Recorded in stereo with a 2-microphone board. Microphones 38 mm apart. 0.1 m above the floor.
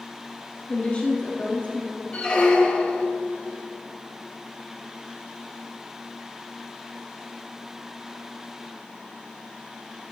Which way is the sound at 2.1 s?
25° left (ahead or behind).